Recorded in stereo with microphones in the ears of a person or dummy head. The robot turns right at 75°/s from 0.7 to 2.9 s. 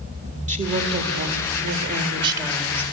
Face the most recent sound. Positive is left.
turn(degrees=20)